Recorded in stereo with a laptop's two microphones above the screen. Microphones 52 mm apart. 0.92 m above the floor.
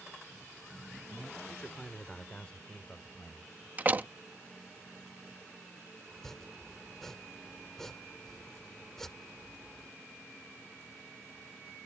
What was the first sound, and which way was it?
A man speaking, 10° left (ahead or behind).